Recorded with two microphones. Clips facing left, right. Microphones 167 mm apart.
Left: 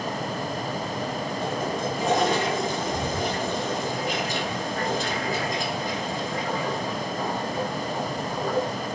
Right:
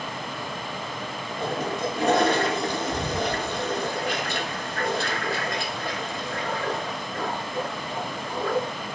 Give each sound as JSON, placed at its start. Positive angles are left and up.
{"t": 1.4, "sound": "a toilet flushing", "side_deg": -70, "distance_m": 3.0}